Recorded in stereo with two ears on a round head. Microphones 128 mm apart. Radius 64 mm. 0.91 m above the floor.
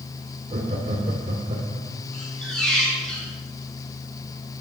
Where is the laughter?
45° right (ahead or behind), 2.5 m.